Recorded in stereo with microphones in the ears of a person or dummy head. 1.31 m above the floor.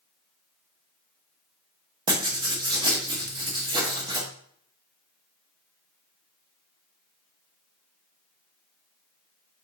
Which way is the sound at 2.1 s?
25° right (ahead or behind).